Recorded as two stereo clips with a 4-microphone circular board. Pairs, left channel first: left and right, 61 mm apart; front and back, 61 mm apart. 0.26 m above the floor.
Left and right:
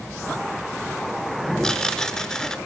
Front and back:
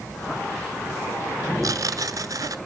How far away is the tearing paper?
About 1.0 m.